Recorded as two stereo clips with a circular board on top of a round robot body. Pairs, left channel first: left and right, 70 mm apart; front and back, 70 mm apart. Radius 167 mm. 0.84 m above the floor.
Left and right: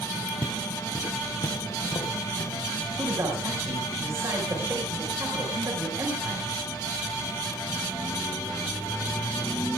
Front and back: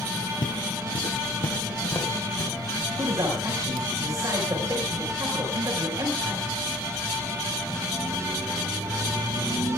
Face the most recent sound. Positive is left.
turn(degrees=-140)